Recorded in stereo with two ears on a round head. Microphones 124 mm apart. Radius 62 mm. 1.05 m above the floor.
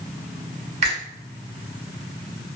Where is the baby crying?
No baby crying in this recording.